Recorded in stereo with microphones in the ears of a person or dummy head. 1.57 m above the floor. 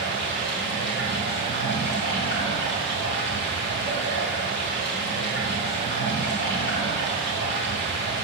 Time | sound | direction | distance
0.0 | running water | 50° left (ahead or behind) | 3 m